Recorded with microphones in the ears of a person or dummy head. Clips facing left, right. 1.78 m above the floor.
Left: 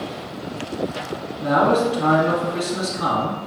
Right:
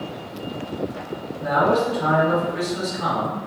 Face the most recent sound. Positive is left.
turn(degrees=55)  # may be behind; listen again after turning